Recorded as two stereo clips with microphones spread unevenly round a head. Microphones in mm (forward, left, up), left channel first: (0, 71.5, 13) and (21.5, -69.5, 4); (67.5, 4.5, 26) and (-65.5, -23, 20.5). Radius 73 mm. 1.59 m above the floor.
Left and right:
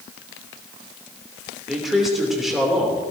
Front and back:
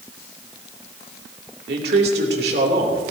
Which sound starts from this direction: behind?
A man speaking, at 1.7 s.